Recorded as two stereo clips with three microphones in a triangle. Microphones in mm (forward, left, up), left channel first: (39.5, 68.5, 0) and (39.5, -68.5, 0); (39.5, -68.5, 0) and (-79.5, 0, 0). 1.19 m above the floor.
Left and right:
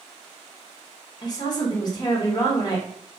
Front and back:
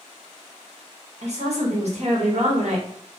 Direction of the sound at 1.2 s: 140° left.